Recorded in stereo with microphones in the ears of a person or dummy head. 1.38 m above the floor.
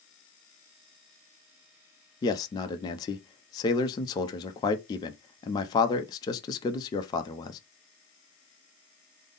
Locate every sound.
2.2 s a man speaking: 20° left (ahead or behind), 0.6 m